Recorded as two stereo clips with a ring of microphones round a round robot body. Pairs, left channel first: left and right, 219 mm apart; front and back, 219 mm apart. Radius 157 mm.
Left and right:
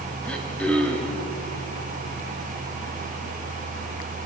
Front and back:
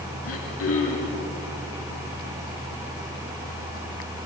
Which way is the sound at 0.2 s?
5° left.